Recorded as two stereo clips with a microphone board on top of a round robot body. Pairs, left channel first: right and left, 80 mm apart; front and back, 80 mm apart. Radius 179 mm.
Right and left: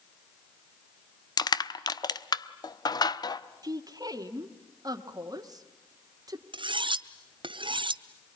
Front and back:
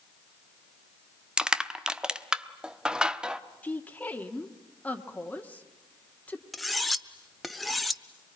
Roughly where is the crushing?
Right.